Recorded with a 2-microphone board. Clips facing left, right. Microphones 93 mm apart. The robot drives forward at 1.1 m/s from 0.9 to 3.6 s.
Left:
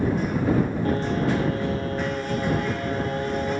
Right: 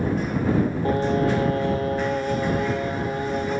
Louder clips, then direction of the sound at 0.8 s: Right 2 dB; 30° right (ahead or behind).